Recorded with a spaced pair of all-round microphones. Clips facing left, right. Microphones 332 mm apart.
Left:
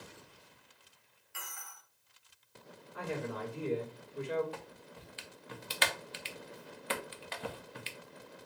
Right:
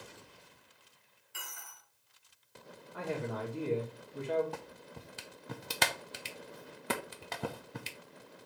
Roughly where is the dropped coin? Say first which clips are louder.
Even; right.